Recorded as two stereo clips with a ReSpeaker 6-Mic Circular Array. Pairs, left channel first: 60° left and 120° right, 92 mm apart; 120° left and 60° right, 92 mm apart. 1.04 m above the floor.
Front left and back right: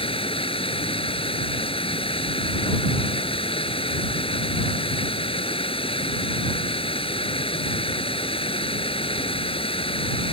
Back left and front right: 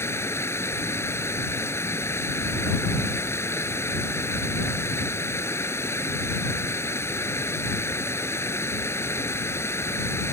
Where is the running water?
55° left.